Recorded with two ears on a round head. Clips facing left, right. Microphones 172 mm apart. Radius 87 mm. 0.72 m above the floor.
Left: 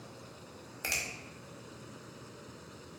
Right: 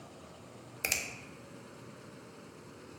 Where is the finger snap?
25° right (ahead or behind), 0.6 m.